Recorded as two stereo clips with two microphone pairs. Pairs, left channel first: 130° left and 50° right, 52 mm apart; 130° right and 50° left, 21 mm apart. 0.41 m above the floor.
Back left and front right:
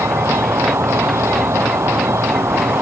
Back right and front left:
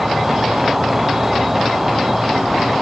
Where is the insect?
25° right.